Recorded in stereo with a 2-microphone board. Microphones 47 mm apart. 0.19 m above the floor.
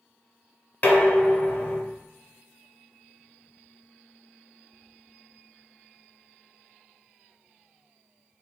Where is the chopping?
No chopping in this recording.